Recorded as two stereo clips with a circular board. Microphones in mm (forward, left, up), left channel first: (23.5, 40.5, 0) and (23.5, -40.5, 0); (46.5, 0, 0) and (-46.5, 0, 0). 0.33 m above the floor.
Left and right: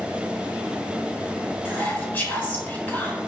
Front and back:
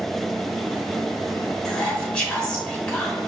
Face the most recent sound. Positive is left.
turn(degrees=65)